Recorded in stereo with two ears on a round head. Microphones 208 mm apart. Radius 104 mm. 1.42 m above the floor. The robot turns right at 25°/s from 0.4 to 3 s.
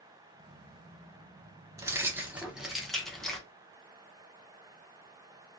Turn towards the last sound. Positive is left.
turn(degrees=5)